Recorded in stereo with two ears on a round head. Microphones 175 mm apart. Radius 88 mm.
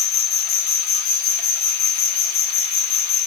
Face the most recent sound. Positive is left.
turn(degrees=50)  # may be behind; listen again after turning